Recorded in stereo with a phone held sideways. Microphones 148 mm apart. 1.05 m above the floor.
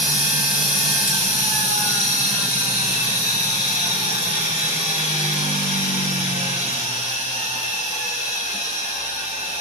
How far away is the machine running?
About 1.6 m.